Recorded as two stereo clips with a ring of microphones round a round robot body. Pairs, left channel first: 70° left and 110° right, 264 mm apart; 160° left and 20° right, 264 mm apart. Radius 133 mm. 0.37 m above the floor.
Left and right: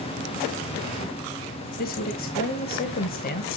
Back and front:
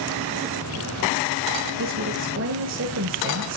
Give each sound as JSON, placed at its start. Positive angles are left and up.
{"t": 1.8, "sound": "a woman speaking", "azimuth_deg": 15, "distance_m": 1.8}